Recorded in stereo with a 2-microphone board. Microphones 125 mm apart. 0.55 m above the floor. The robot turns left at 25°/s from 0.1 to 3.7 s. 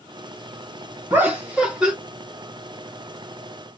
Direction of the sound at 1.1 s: 15° right (ahead or behind).